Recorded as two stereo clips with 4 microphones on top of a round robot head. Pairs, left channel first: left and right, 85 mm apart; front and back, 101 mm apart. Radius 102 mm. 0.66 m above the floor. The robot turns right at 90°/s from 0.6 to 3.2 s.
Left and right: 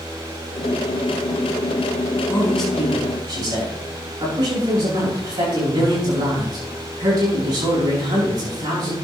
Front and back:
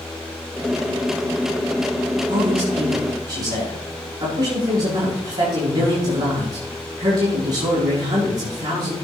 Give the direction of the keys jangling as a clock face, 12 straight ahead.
No keys jangling in this recording.